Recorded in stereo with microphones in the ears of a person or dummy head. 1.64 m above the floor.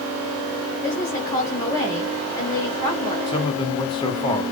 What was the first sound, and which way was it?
A woman speaking, 10° left (ahead or behind).